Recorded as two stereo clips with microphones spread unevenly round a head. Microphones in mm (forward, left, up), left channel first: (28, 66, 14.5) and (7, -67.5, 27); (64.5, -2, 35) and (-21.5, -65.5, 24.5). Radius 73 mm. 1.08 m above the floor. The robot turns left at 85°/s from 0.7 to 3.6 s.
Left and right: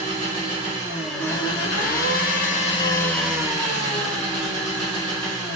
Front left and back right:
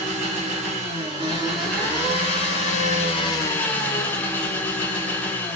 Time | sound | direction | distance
0.0 | an engine running | 155° right | 1.0 m